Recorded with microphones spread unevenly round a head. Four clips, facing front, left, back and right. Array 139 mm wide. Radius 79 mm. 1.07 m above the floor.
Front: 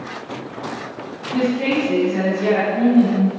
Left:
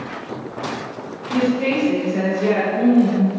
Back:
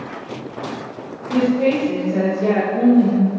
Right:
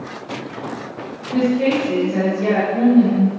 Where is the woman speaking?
155° right, 4.5 m.